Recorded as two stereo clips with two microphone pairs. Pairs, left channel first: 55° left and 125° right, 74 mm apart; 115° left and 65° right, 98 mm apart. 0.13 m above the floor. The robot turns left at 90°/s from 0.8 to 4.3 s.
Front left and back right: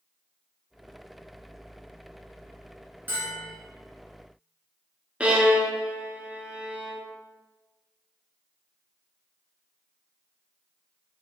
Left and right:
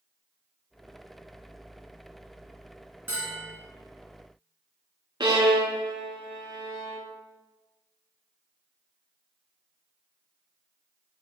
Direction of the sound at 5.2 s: 60° right.